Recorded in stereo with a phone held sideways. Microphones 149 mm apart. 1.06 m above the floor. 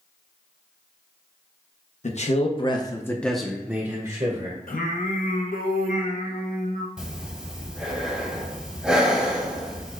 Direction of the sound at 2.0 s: 55° left (ahead or behind).